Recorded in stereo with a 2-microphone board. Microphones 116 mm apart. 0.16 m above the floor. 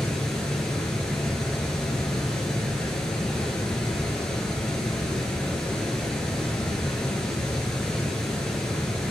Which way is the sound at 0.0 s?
5° left (ahead or behind).